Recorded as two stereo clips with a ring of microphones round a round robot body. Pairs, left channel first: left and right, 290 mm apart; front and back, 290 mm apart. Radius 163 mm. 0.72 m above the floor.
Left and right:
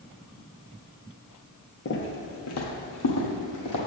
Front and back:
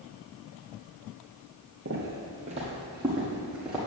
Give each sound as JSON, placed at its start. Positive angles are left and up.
{"t": 1.9, "sound": "footsteps", "azimuth_deg": 135, "distance_m": 1.0}